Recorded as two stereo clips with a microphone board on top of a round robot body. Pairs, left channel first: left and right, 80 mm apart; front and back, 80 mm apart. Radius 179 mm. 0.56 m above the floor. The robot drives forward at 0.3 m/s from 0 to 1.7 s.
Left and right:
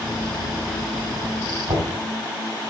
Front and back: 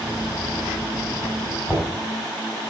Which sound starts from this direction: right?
Knocking, at 1.7 s.